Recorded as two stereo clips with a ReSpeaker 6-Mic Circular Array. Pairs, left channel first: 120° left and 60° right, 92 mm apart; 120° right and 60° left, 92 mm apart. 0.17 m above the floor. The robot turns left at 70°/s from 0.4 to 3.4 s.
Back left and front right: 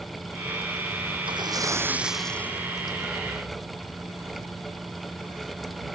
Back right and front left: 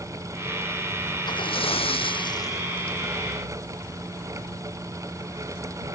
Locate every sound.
1.3 s a splash: 85° right; by 3.0 s 155° left